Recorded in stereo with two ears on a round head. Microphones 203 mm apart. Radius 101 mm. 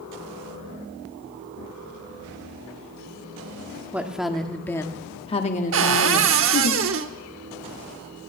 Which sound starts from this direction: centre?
A woman speaking, at 3.9 s.